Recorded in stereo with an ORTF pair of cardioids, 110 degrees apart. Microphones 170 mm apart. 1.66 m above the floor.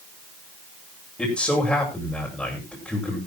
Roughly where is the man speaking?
Ahead.